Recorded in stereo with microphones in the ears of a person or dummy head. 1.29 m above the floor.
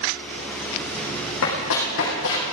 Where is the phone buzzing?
I don't hear a phone buzzing.